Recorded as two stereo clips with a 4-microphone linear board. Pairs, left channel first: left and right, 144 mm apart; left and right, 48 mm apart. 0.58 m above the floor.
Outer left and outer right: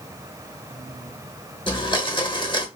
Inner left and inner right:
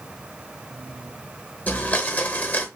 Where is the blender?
35° left (ahead or behind), 0.9 m.